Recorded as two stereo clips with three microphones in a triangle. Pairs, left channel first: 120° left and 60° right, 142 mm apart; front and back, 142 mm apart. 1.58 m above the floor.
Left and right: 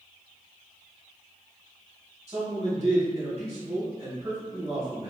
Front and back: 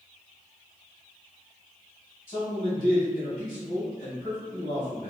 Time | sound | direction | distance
2.3 | a man speaking | 20° right | 1.6 m